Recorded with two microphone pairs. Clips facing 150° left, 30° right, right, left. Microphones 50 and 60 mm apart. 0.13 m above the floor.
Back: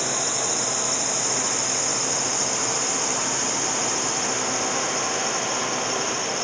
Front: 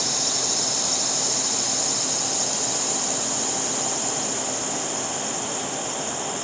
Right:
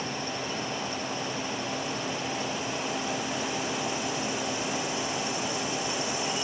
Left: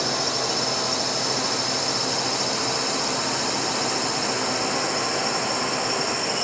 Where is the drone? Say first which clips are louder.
Back 2 dB, left 7 dB; 90° left; by 6.5 s 115° left.